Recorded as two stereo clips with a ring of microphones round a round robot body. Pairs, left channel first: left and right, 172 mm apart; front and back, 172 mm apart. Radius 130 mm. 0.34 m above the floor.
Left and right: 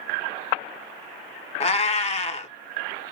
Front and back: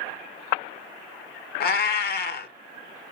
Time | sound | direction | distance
1.6 | a cat meowing | 35° left | 0.6 m